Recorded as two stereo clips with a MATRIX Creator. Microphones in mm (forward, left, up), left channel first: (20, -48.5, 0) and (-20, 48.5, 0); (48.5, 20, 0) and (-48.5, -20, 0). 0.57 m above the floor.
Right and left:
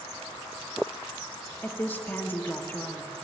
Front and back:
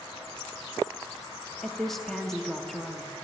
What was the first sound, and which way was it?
A woman speaking, 60° right.